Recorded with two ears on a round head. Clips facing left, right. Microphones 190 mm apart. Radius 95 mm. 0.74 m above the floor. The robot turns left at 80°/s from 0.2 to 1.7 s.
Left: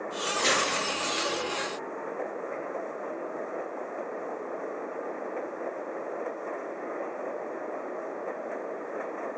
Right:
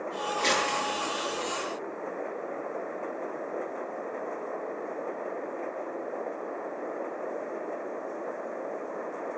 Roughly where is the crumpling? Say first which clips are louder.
Left 1 dB; centre.